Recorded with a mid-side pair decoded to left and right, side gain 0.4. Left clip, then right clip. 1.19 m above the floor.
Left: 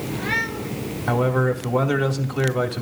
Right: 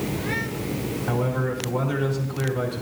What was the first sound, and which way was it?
A man speaking, 60° left.